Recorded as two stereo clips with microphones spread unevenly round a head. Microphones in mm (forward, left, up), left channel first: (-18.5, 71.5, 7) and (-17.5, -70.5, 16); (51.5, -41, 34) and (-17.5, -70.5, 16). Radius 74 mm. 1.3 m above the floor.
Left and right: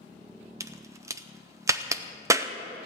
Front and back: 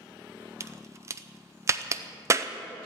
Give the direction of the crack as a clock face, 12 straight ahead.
5 o'clock.